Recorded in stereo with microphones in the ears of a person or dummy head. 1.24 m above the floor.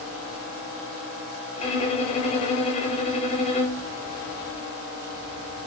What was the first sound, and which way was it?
A violin, 35° left (ahead or behind).